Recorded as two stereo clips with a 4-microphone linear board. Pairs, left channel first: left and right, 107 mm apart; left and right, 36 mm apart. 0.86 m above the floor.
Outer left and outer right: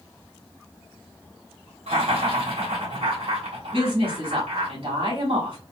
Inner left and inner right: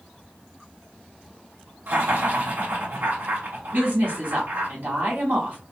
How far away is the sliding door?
I don't hear a sliding door.